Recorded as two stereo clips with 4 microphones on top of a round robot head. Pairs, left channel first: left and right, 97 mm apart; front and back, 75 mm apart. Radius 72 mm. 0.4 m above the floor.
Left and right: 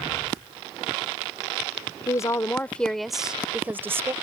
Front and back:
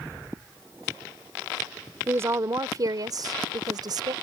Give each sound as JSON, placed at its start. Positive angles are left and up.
{"t": 2.1, "sound": "a woman speaking", "azimuth_deg": 130}